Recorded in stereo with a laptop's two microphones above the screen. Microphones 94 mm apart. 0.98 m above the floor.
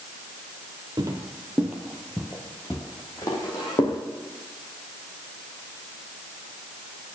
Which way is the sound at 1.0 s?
40° right (ahead or behind).